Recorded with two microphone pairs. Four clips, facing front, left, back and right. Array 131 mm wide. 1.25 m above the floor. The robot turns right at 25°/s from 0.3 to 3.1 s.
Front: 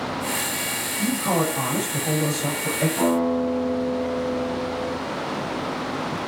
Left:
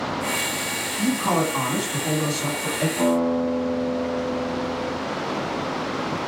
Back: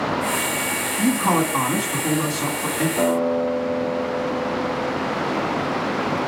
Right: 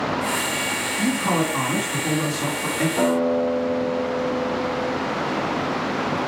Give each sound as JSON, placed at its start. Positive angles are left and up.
{"t": 1.0, "sound": "a man speaking", "azimuth_deg": 170, "distance_m": 2.0}
{"t": 3.0, "sound": "a guitar", "azimuth_deg": -110, "distance_m": 4.5}